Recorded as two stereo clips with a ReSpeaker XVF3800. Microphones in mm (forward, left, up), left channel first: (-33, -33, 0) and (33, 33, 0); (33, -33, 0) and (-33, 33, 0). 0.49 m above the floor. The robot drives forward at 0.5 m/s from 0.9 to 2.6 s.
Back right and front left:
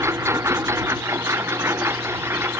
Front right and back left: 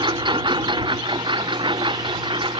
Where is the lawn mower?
105° left; by 2.6 s 110° left.